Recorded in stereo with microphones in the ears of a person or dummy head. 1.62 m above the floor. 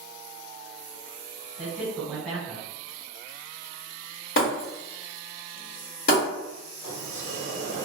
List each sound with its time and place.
1.6 s a man speaking: 5° right (ahead or behind), 1.5 m
4.4 s breaking glass: 55° left (ahead or behind), 1.8 m
6.8 s a sliding door: 55° left (ahead or behind), 1.1 m